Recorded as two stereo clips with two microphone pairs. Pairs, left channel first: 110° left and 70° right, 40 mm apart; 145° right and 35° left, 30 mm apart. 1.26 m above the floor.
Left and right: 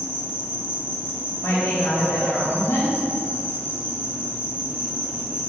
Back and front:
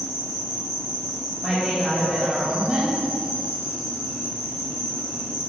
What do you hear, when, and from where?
0.0 s an insect: 100° left, 3 m
1.4 s a woman speaking: 110° left, 3 m